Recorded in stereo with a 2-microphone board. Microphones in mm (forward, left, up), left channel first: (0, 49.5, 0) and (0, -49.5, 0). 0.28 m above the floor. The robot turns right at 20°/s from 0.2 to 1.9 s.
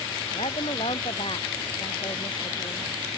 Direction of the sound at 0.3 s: 100° left.